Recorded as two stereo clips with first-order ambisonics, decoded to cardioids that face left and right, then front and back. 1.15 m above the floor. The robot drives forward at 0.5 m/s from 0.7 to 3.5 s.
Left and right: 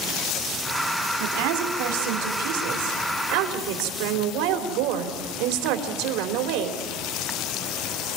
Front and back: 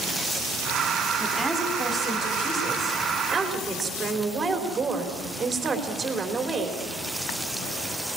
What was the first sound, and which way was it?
A woman speaking, 85° right.